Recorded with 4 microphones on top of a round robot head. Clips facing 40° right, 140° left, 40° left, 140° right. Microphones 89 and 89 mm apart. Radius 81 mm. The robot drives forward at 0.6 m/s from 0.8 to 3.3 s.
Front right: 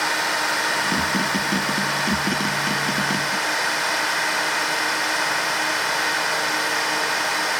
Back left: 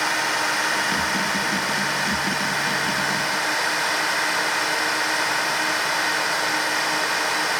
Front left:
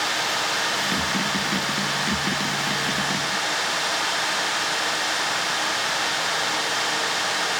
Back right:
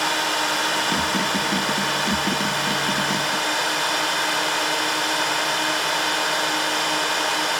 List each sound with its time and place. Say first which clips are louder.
0.0 s a drone: even, back right 3 dB; 125° right; by 7.6 s 130° right